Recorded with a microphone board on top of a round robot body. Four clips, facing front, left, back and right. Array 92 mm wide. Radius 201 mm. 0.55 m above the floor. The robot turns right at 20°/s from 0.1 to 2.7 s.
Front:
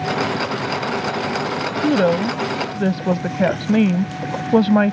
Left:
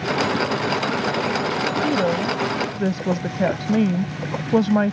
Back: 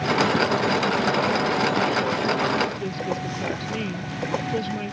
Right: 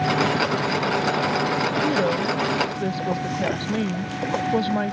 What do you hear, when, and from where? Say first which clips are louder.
1.8 s a woman speaking: left 1 dB, front 6 dB; straight ahead; by 4.9 s 20° left